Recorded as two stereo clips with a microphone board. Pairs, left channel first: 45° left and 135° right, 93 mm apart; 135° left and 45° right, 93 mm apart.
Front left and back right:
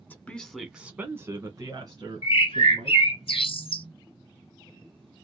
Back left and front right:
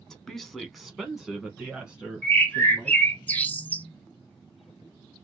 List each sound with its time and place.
0.1 s a woman speaking: 60° left, 1.1 m; by 3.1 s 125° right, 2.5 m
2.2 s a bird: 60° left, 0.8 m